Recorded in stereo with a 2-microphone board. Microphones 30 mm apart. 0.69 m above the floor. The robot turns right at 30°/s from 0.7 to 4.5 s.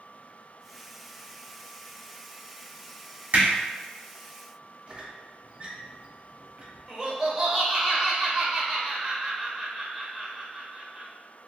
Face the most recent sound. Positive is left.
turn(degrees=-10)  # may be behind; listen again after turning